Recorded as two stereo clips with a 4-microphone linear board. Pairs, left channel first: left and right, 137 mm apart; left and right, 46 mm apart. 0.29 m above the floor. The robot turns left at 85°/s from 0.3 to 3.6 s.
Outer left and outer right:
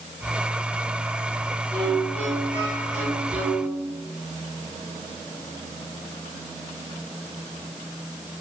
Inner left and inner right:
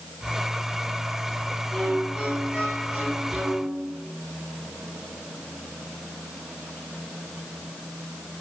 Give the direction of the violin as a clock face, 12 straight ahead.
11 o'clock.